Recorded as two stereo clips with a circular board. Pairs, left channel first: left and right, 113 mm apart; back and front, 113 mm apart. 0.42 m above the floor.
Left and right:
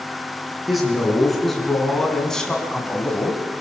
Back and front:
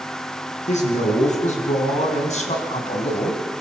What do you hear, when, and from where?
0.7 s a man speaking: straight behind, 6 m; by 3.4 s 170° left, 2.5 m